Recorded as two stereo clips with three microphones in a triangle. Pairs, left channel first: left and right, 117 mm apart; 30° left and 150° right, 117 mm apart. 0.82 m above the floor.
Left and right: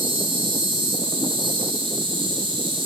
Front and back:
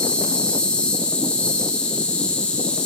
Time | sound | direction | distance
0.0 | an insect | 50° right | 3.5 m